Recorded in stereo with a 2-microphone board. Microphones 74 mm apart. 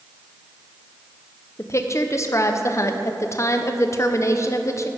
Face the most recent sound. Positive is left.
turn(degrees=40)  # may be behind; listen again after turning